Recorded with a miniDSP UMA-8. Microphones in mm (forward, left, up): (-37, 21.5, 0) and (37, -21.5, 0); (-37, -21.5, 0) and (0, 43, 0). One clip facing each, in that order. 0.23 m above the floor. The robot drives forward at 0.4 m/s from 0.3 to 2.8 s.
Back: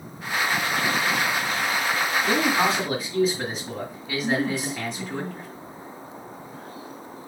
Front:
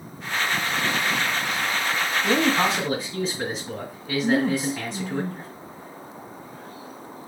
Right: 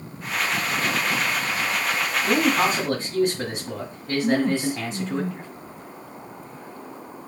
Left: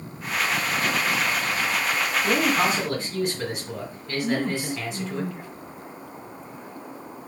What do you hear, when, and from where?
2.2 s a man speaking: 110° right, 1.7 m; by 5.2 s 120° right, 1.8 m
4.2 s a woman speaking: 75° right, 1.8 m